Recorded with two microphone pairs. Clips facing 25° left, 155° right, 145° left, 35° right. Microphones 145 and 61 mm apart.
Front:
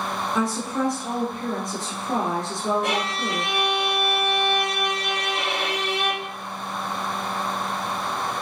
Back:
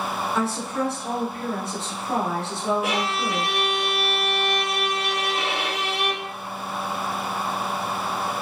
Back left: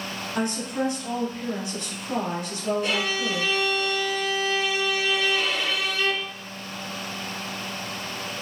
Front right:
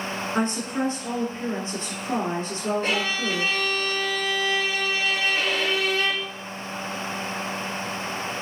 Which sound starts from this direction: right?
A violin, at 2.8 s.